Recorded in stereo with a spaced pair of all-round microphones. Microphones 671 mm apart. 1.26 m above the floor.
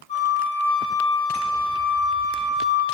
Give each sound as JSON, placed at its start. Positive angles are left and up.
{"t": 0.1, "sound": "a flute", "side_deg": 10, "distance_m": 2.5}